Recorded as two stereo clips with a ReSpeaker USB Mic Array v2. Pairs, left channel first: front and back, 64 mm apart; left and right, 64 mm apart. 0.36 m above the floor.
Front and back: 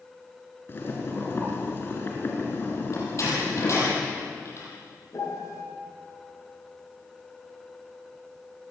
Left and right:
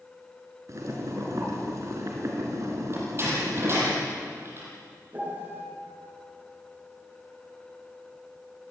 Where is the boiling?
55° right, 5 m.